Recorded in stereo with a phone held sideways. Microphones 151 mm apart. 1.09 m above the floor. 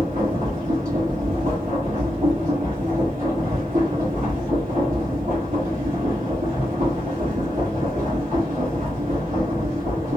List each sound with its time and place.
0.0 s a machine running: 60° right (ahead or behind), 1.3 m